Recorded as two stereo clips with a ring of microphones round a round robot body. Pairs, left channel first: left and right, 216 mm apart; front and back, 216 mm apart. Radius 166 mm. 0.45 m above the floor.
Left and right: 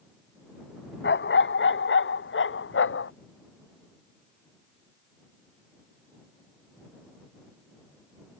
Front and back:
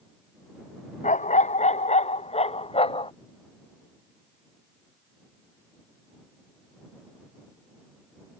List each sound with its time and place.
1.0 s a dog barking: 55° left; by 3.1 s 65° left